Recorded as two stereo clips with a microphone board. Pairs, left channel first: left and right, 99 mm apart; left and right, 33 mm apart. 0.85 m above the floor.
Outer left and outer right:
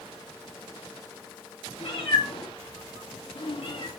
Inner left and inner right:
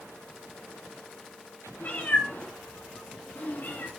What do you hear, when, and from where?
1.8 s a cat meowing: 70° left (ahead or behind), 5 m; by 3.9 s 75° left (ahead or behind), 5.5 m